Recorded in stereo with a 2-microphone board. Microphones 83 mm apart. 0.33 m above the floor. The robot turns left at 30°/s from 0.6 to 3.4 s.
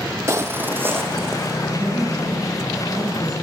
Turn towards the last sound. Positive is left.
turn(degrees=-115)